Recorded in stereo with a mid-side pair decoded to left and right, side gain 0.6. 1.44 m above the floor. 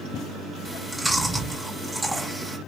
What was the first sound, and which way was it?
Chewing, 15° right.